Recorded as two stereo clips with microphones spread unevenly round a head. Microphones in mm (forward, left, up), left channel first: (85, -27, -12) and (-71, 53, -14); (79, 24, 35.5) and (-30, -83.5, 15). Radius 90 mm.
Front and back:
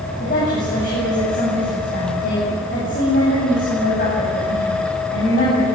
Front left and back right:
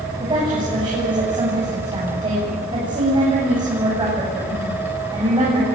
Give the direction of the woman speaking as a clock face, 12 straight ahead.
3 o'clock.